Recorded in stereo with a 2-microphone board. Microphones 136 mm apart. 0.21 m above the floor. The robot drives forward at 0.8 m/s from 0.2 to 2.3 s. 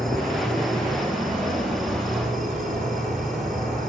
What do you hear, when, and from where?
0.0 s an insect: centre (ahead or behind), 6.5 m